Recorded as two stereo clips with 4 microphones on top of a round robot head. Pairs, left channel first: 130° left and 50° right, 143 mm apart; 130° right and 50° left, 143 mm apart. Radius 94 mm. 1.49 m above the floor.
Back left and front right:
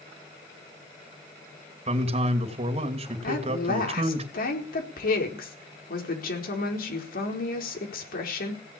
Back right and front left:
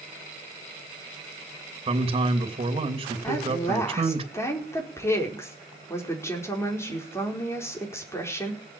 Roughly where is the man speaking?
Ahead.